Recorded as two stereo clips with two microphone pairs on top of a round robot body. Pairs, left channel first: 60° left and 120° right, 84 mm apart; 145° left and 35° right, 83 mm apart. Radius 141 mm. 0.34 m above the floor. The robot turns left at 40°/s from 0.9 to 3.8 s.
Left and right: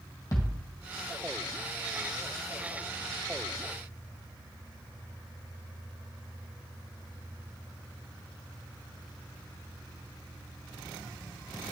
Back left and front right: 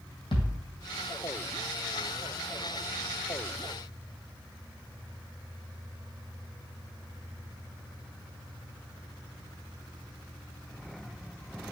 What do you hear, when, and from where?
0.3 s a thud: 115° left, 1.7 m